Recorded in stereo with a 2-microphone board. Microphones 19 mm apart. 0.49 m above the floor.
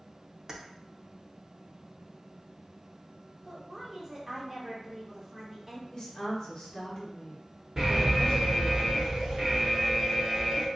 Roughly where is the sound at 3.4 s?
Centre.